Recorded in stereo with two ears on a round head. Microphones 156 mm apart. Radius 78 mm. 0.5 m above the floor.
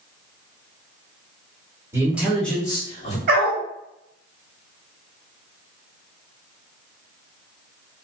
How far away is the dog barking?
About 0.9 m.